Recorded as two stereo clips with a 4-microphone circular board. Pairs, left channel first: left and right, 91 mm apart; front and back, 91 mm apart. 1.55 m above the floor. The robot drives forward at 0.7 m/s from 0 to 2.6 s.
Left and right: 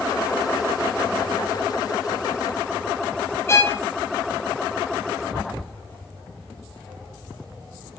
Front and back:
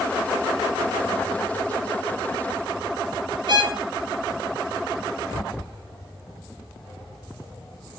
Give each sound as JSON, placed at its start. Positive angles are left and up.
{"t": 3.5, "sound": "a violin", "azimuth_deg": 150, "distance_m": 3.0}